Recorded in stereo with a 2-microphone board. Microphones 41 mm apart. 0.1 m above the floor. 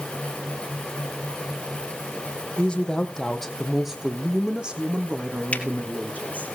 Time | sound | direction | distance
2.6 | a woman speaking | 25° left (ahead or behind) | 3.5 m
5.5 | a finger snap | 30° left (ahead or behind) | 2.5 m